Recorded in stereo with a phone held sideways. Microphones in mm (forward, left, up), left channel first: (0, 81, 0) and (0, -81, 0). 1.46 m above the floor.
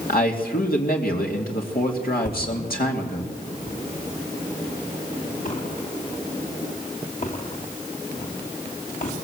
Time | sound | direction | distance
0.1 | a man speaking | 70° left (ahead or behind) | 2.5 m
2.2 | a thud | 55° left (ahead or behind) | 3.5 m